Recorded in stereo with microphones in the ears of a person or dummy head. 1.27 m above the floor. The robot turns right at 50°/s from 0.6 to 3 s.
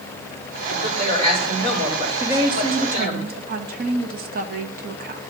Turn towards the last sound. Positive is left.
turn(degrees=-130)